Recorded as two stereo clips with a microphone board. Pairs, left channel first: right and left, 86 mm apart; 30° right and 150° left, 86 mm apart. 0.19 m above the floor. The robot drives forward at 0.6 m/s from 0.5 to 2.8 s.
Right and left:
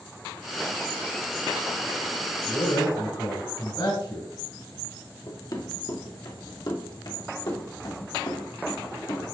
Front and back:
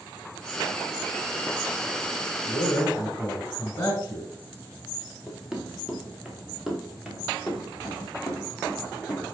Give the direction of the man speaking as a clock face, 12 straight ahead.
3 o'clock.